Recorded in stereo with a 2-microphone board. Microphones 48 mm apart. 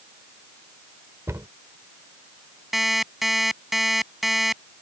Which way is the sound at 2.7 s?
5° right (ahead or behind).